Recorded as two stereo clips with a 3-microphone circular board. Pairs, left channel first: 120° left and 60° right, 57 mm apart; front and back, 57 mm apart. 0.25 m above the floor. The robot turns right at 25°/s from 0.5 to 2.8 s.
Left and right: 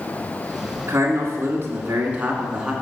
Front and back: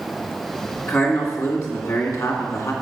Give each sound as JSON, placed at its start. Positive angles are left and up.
{"t": 0.9, "sound": "a man speaking", "azimuth_deg": -35, "distance_m": 2.5}